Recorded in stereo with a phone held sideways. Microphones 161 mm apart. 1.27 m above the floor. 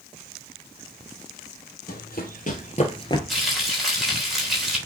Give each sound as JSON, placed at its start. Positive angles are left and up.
{"t": 1.9, "sound": "running footsteps", "side_deg": 60, "distance_m": 2.5}
{"t": 3.3, "sound": "frying", "side_deg": 0, "distance_m": 3.5}